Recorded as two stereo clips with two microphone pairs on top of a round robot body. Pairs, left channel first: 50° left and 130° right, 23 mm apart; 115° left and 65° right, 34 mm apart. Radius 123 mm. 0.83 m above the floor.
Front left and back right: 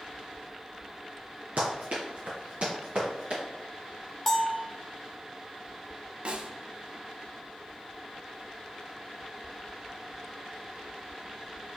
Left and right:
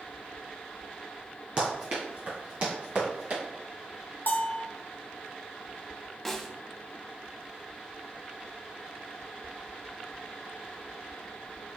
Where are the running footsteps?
130° right, 1.1 m; by 3.4 s 90° right, 2.5 m.